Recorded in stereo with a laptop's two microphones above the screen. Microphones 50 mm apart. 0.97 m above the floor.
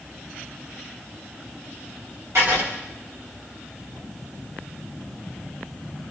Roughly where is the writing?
Right.